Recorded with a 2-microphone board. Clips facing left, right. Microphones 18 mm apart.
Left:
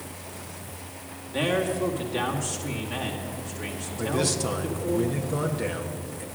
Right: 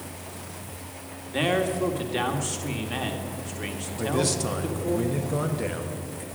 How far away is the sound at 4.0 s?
About 1.1 m.